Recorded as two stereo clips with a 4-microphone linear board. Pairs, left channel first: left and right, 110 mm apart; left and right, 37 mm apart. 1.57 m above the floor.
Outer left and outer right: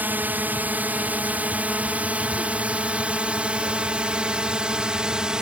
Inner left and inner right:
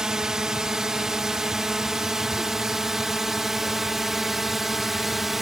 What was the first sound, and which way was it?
A drone, 15° right (ahead or behind).